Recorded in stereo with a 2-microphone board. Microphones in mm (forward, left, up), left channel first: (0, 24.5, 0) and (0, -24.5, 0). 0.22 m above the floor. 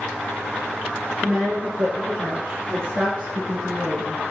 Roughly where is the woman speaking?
Right.